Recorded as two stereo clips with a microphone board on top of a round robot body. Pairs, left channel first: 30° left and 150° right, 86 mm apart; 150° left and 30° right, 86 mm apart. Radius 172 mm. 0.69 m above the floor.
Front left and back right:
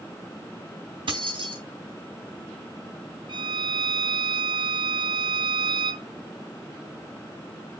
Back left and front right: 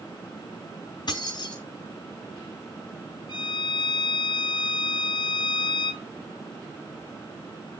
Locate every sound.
1.1 s keys jangling: 170° right, 4 m
3.3 s a violin: straight behind, 3.5 m